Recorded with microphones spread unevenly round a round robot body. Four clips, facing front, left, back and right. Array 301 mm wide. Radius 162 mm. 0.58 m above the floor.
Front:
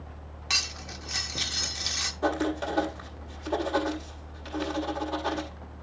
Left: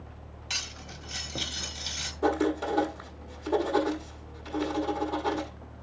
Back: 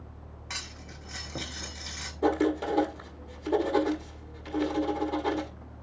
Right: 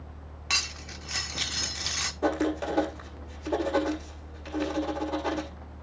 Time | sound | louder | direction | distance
0.5 | cutlery clinking | right 6 dB, front 6 dB | 50° right | 0.8 m
2.2 | writing | left 1 dB, back 2 dB | 155° right | 0.7 m